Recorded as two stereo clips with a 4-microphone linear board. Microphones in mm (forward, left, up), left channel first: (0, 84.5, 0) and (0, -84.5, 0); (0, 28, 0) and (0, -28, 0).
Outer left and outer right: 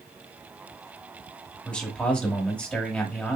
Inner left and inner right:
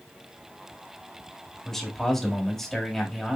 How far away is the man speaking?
About 1.3 m.